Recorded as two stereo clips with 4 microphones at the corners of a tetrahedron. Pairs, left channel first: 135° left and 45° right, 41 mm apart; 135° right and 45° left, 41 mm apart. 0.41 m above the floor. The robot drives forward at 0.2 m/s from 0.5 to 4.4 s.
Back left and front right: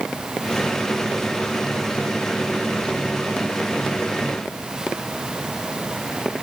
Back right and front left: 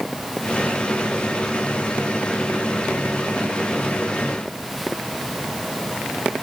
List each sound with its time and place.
Only background noise.